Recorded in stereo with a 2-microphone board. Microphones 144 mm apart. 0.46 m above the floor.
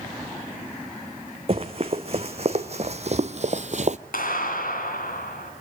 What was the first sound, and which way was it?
Running footsteps, 45° right (ahead or behind).